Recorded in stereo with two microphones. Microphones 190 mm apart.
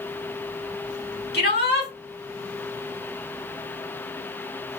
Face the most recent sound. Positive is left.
turn(degrees=60)  # may be behind; listen again after turning